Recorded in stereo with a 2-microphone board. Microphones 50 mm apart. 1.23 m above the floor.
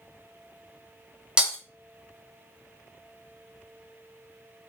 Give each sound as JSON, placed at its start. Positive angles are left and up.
{"t": 1.4, "sound": "breaking glass", "side_deg": -20, "distance_m": 0.9}